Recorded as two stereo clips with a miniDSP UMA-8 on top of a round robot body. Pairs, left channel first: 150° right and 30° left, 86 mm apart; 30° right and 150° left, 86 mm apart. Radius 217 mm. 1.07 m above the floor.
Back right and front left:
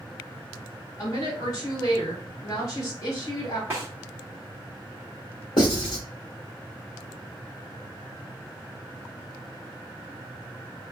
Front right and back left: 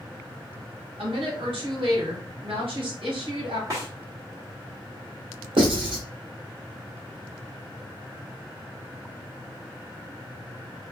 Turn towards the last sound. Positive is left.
turn(degrees=170)